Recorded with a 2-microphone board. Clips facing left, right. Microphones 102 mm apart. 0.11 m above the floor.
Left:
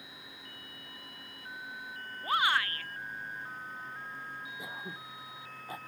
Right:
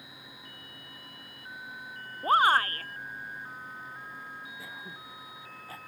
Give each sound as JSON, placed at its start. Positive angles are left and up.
{"t": 2.2, "sound": "a shout", "side_deg": -40}
{"t": 4.6, "sound": "throat clearing", "side_deg": 15}